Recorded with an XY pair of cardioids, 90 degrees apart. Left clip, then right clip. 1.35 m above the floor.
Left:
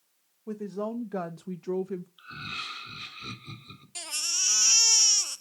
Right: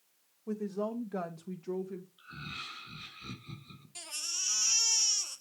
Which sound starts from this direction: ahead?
A woman speaking, at 0.5 s.